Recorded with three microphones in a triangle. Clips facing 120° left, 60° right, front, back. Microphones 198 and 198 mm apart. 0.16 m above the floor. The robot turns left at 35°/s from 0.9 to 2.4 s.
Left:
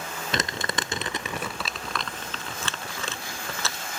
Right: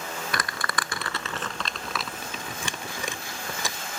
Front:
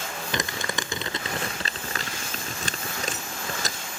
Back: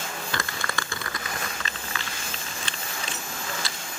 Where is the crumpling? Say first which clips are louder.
Left 5 dB, front 3 dB; 65° left; by 3.8 s 10° left.